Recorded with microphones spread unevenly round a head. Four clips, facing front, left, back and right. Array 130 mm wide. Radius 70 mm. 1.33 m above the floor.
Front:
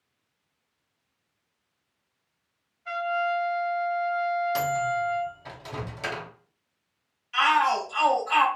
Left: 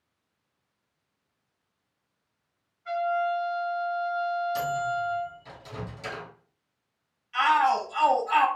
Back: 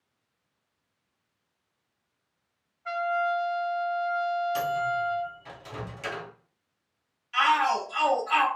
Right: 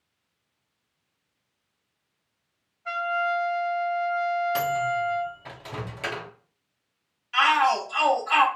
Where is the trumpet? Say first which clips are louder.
Even, even; 140° right, 1.4 m.